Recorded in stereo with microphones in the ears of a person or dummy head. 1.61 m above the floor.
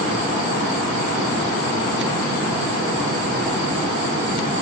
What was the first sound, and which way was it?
Only background noise.